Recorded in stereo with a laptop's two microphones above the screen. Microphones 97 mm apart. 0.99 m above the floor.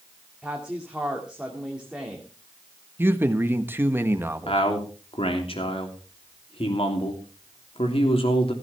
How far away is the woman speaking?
About 2.0 m.